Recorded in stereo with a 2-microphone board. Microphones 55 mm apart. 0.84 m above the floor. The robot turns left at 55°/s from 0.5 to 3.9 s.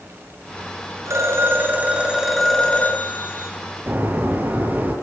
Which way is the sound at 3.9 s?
40° right (ahead or behind).